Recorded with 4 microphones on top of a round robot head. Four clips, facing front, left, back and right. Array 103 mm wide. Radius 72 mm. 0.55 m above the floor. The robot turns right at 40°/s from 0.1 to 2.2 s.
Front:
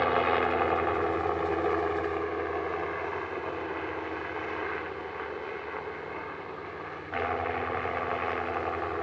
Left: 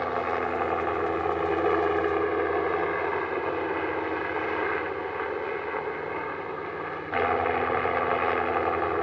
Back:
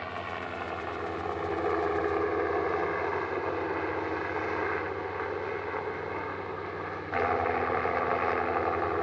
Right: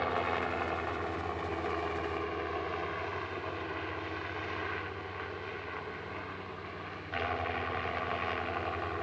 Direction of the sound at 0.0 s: 25° left.